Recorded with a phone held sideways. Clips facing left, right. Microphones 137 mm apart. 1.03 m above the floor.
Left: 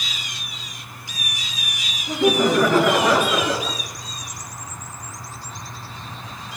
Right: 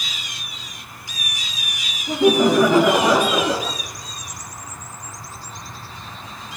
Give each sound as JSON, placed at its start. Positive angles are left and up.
{"t": 2.1, "sound": "laughter", "side_deg": -15, "distance_m": 3.0}